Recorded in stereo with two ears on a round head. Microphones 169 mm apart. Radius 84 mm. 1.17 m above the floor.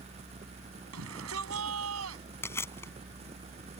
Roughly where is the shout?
Right.